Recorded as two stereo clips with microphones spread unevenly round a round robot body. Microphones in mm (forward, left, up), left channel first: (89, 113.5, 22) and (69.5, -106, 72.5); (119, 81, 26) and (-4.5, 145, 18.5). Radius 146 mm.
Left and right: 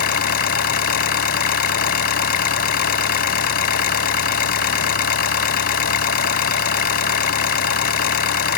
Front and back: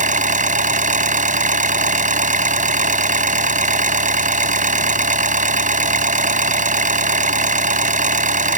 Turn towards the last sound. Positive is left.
turn(degrees=135)